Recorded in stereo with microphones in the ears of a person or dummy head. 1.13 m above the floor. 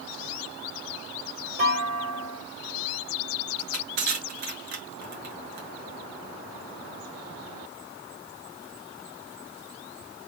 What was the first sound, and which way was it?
A clunk, 50° right (ahead or behind).